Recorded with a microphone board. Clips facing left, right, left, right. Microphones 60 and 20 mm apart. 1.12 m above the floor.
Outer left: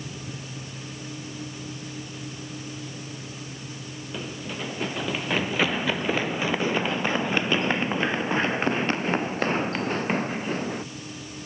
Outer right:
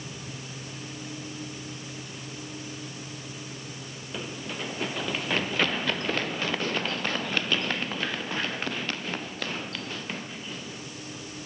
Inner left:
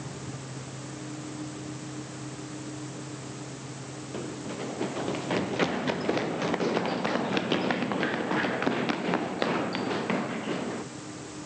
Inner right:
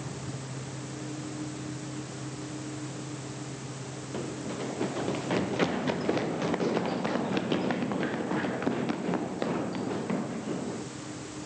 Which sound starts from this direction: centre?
Running footsteps, at 4.1 s.